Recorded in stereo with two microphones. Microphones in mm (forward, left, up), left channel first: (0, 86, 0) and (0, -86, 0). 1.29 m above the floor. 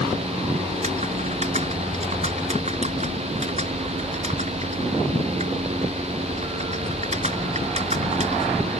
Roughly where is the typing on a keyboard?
Right.